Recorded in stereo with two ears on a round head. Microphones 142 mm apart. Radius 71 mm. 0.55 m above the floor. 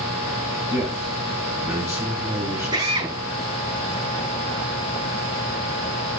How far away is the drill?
About 6 m.